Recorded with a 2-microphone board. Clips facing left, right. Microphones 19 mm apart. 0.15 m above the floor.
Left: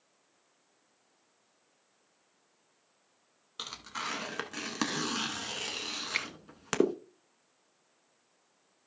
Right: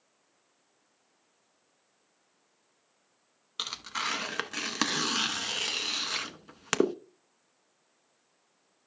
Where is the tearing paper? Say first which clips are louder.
Right 5 dB; 30° right (ahead or behind), 0.7 m.